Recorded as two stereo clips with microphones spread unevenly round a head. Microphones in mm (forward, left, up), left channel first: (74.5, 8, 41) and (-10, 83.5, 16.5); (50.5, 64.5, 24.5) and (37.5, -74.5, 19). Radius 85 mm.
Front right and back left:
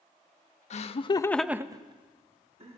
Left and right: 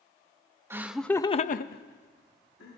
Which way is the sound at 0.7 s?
20° right.